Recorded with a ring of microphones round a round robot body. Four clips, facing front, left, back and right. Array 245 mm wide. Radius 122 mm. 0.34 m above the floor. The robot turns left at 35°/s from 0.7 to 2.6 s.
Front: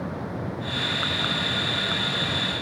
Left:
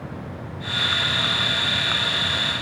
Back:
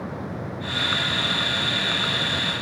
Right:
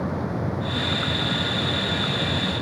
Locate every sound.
Only background noise.